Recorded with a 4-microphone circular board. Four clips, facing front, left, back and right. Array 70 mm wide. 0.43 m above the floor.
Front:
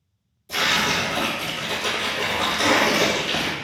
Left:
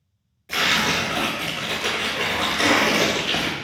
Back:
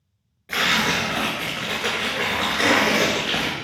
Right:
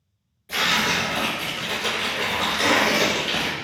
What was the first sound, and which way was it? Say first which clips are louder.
Tearing paper: left 1 dB, back 1 dB; 170° left.